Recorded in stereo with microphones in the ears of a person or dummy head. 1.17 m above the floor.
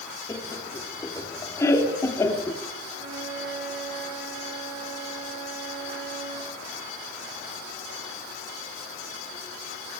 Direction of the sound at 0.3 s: 20° left (ahead or behind).